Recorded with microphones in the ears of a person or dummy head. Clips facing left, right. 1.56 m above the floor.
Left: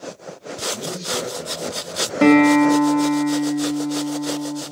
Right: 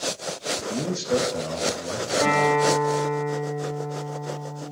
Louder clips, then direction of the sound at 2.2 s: Left 10 dB; 40° left (ahead or behind).